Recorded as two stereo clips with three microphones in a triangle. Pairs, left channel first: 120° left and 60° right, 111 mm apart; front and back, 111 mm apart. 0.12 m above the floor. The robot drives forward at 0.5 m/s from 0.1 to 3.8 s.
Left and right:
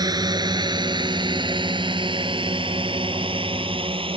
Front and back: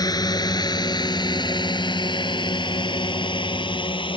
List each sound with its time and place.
0.0 s a drone: 30° right